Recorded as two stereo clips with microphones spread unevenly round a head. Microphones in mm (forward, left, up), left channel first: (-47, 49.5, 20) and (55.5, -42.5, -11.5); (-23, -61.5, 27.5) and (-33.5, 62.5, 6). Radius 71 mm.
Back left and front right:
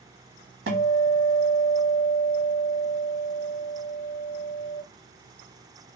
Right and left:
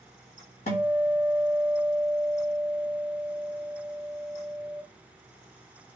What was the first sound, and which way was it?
A guitar, 40° right.